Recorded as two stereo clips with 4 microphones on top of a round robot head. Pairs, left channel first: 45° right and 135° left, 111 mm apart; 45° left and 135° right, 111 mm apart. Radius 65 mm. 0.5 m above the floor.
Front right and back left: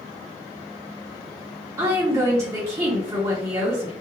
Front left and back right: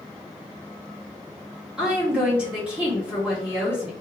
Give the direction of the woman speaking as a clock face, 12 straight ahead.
7 o'clock.